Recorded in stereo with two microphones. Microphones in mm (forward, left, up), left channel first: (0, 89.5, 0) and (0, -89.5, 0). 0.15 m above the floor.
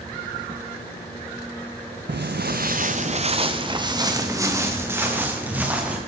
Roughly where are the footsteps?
Right.